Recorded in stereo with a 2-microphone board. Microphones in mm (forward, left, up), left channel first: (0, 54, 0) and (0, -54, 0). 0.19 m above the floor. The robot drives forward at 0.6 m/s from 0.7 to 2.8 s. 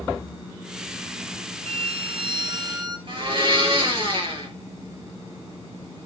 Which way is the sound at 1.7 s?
65° right (ahead or behind).